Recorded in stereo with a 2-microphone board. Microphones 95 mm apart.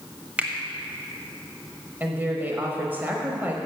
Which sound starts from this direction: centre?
A finger snap, at 0.4 s.